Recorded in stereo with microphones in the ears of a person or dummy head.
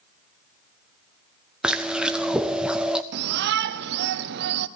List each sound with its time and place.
1.6 s chewing: 5° right (ahead or behind), 0.6 m
3.1 s a shout: 60° right (ahead or behind), 0.8 m